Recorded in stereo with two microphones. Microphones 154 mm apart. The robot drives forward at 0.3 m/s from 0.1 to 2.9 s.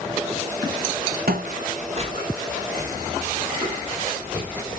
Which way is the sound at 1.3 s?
80° right.